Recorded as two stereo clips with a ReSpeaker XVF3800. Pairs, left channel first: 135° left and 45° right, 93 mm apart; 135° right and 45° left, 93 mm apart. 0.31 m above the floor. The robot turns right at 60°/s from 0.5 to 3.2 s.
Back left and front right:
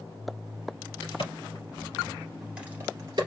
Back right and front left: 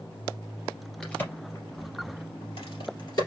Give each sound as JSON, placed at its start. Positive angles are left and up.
{"t": 1.0, "sound": "a crack", "azimuth_deg": 145, "distance_m": 3.0}